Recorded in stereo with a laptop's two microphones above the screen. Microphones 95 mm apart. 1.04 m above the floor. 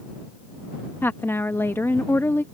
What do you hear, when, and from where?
1.0 s a woman speaking: 25° left (ahead or behind)